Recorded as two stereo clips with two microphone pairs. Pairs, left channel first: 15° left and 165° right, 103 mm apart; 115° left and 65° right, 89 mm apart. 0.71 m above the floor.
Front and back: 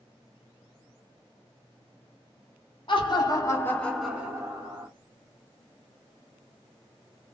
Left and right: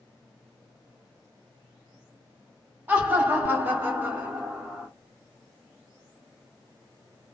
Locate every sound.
2.9 s laughter: 5° left, 1.1 m; by 4.9 s 140° right, 1.0 m